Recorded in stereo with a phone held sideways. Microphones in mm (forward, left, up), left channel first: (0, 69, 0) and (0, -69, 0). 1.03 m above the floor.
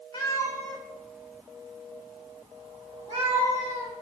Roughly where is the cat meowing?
Left.